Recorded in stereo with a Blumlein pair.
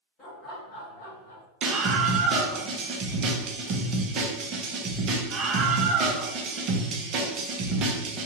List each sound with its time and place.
0.2 s laughter: 35° left, 1.2 m; by 1.4 s 70° left, 0.7 m
1.6 s a scream: 30° right, 0.7 m